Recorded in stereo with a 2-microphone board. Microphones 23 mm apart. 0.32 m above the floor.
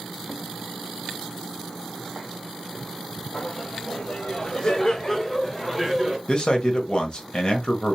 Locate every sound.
3.3 s laughter: 45° left (ahead or behind), 1.6 m; by 6.2 s 5° right (ahead or behind), 0.9 m
6.3 s a man speaking: 35° left (ahead or behind), 1.1 m